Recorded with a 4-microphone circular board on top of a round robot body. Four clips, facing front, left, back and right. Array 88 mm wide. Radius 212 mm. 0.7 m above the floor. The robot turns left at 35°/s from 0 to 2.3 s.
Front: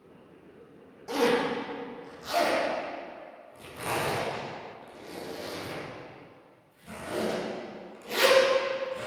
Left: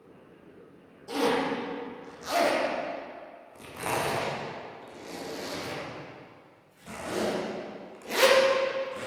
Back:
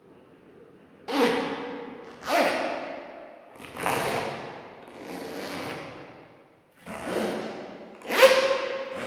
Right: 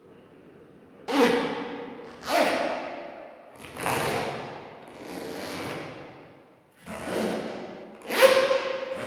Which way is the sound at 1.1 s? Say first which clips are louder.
Right 5 dB, back 1 dB; 120° right.